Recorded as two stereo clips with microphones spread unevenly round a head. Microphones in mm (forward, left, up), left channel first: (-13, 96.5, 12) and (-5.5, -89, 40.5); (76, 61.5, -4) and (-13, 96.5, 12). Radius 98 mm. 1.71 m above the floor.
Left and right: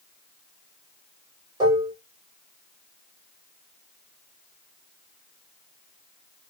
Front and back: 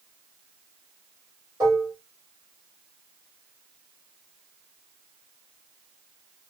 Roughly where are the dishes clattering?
Behind right.